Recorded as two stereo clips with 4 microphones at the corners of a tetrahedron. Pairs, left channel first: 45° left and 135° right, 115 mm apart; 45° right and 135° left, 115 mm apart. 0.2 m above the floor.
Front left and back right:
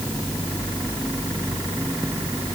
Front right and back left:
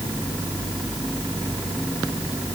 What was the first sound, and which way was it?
Only background noise.